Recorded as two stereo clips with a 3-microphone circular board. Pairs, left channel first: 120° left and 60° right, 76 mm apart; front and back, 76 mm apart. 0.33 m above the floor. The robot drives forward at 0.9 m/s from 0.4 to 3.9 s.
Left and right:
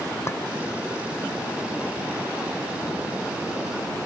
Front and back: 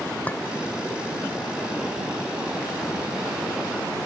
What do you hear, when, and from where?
0.3 s a clink: 70° left